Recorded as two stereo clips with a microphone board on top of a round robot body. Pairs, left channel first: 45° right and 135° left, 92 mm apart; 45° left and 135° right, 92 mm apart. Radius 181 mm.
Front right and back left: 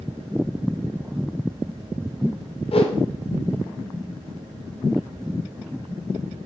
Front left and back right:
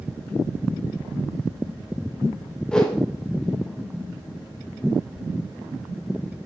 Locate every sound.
2.7 s a whoosh: 35° right, 0.6 m